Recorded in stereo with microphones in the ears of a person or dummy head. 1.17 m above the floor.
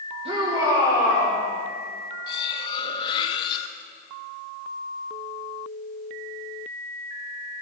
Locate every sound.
0.2 s a shout: 30° right (ahead or behind), 2.5 m; by 1.4 s centre (ahead or behind), 3 m
2.3 s cutlery clinking: 25° left (ahead or behind), 0.8 m